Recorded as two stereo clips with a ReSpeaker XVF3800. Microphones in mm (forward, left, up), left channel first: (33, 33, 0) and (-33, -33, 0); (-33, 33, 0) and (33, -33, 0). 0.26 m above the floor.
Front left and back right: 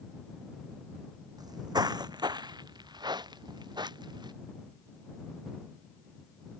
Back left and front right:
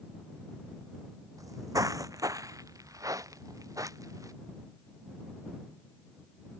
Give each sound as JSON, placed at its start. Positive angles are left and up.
{"t": 1.4, "sound": "footsteps", "azimuth_deg": -95}